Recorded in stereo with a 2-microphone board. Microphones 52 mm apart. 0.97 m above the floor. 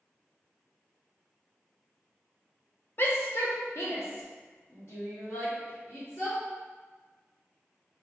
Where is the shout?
45° left (ahead or behind), 0.6 m; by 6.4 s 70° left (ahead or behind), 2 m.